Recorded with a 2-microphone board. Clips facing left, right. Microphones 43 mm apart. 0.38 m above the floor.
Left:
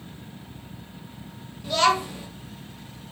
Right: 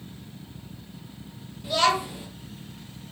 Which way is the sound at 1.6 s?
10° right (ahead or behind).